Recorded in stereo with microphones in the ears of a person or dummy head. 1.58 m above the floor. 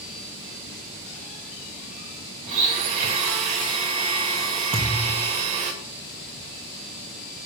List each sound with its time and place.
2.5 s a blender: 35° right (ahead or behind), 0.9 m
4.7 s a thud: 20° right (ahead or behind), 0.9 m